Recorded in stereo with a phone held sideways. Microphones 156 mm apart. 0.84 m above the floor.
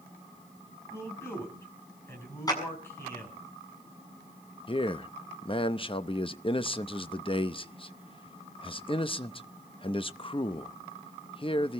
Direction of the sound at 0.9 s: 15° left (ahead or behind).